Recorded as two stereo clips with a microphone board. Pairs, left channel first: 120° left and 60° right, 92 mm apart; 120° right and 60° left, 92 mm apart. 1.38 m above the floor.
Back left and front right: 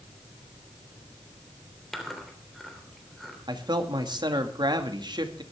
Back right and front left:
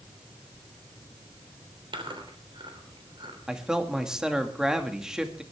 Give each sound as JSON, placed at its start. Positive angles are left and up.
{"t": 1.9, "sound": "chewing", "azimuth_deg": 30, "distance_m": 3.0}
{"t": 3.5, "sound": "a man speaking", "azimuth_deg": -20, "distance_m": 2.0}